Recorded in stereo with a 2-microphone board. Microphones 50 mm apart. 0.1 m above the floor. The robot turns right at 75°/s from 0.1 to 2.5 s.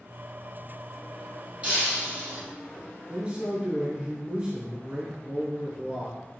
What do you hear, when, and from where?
1.6 s breaking glass: 150° right, 1.9 m; by 2.4 s 90° right, 1.9 m
3.1 s a man speaking: 25° right (ahead or behind), 1.8 m